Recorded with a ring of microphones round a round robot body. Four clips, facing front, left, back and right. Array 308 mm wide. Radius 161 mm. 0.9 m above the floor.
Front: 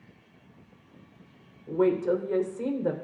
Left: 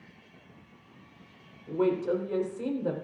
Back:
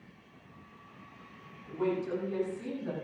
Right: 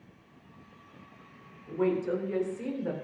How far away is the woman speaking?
About 3.5 m.